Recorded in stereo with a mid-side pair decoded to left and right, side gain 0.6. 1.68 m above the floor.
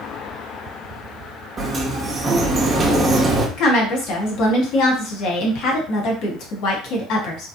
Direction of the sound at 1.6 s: 25° right.